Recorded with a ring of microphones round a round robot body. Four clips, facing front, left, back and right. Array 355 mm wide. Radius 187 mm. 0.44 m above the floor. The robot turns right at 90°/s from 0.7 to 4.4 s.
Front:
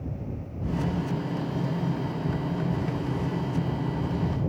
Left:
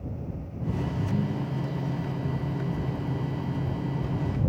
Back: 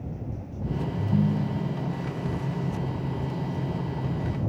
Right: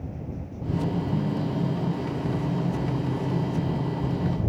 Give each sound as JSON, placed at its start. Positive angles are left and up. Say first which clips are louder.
{"t": 1.0, "sound": "a ringtone", "louder": "right 2 dB, back 4 dB", "azimuth_deg": 150}